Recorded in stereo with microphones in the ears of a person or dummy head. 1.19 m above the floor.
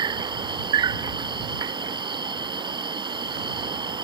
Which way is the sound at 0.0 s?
30° right (ahead or behind).